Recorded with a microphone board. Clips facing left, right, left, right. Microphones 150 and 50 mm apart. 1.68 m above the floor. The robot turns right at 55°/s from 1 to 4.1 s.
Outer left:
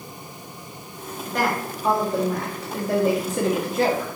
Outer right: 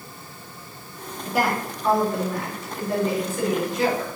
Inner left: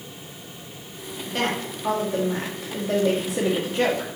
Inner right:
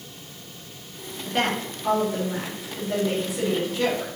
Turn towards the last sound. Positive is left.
turn(degrees=145)